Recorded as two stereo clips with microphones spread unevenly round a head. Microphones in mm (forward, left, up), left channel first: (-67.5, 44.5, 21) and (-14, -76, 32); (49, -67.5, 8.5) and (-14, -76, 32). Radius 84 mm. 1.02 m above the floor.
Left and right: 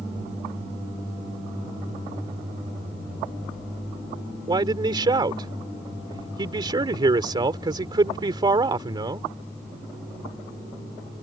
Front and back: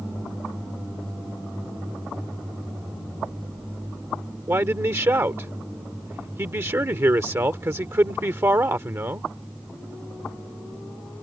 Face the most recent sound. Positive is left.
turn(degrees=-125)